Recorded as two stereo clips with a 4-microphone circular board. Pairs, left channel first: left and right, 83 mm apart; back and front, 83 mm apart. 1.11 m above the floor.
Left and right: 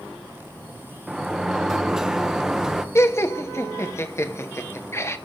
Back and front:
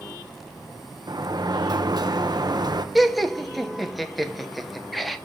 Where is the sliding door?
10° right, 0.8 m.